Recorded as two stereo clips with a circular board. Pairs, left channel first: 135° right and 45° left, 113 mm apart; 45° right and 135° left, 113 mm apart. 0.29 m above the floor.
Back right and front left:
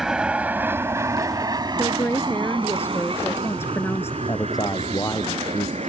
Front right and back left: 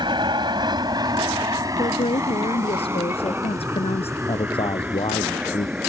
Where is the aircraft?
130° left; by 5.9 s 55° left.